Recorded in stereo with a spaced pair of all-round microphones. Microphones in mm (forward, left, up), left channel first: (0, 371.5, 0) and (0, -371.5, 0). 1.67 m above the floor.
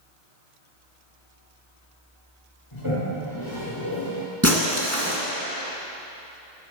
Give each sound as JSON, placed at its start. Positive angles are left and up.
{"t": 2.7, "sound": "a toilet flushing", "side_deg": 40, "distance_m": 3.0}
{"t": 4.4, "sound": "breaking glass", "side_deg": -20, "distance_m": 1.6}